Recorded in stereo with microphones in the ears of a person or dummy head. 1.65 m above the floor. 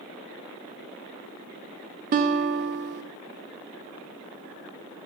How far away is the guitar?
About 1.2 m.